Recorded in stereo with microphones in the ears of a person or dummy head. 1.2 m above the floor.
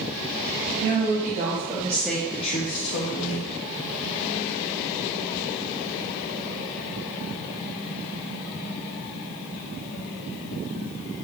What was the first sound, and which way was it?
A woman speaking, 50° right (ahead or behind).